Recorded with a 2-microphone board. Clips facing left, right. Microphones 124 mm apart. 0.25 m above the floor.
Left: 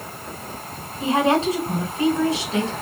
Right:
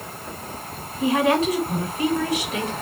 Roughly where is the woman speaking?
Left.